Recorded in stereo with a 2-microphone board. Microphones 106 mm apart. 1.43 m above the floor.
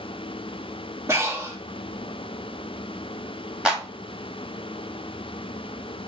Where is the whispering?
I don't hear whispering.